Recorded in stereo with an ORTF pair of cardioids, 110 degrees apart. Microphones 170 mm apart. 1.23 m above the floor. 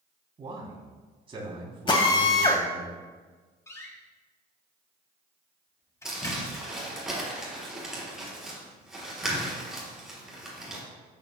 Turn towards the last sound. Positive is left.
turn(degrees=-5)